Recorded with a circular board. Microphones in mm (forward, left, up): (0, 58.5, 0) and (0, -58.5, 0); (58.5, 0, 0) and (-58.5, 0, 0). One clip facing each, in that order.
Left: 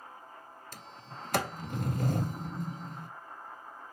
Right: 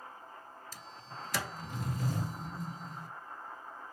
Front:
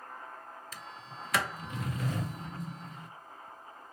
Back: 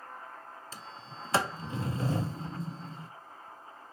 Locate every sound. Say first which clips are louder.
0.7 s a sliding door: left 1 dB, even; 120° left, 0.6 m